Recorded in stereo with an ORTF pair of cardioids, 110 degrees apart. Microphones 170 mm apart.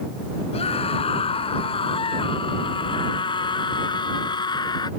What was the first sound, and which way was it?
A scream, 35° left.